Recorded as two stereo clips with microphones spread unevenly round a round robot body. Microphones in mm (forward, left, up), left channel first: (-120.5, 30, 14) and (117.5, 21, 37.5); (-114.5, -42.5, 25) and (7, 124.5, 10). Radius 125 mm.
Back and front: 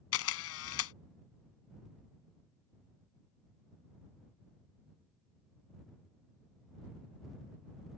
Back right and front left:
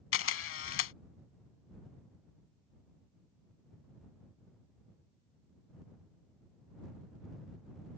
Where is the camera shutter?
150° right.